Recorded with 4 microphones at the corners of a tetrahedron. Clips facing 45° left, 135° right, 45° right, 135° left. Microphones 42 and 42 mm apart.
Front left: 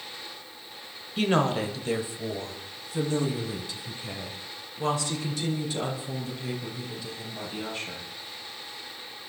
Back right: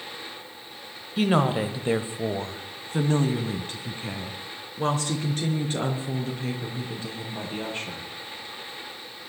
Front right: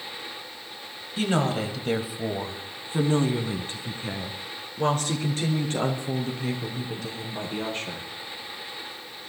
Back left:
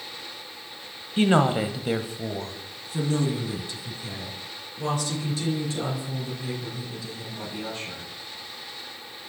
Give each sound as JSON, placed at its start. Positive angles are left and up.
{"t": 1.2, "sound": "a woman speaking", "azimuth_deg": 140, "distance_m": 1.3}